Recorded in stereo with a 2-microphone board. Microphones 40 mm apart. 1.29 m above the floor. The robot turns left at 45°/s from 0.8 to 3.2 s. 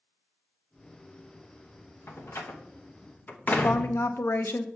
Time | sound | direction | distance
2.1 | a door slam | 75° left (ahead or behind) | 1.0 m
3.5 | a woman speaking | 80° left | 0.8 m